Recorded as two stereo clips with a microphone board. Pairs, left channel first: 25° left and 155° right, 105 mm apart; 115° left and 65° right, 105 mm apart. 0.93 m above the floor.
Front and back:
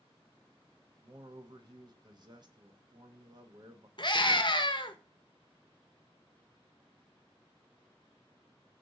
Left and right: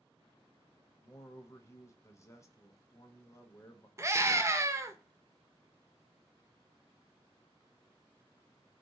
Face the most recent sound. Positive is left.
turn(degrees=-10)